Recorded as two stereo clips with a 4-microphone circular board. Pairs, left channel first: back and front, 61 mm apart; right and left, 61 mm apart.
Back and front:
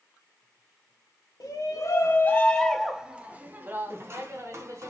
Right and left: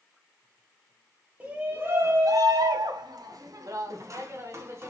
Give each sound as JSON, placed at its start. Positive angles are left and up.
{"t": 1.4, "sound": "a shout", "azimuth_deg": 155, "distance_m": 0.9}